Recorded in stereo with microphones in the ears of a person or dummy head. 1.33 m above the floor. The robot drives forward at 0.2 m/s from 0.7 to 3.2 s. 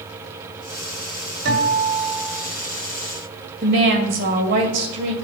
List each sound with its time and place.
1.4 s a guitar: 60° right (ahead or behind), 2 m; by 2.5 s 55° right (ahead or behind), 2 m
3.6 s a woman speaking: 45° right (ahead or behind), 1.9 m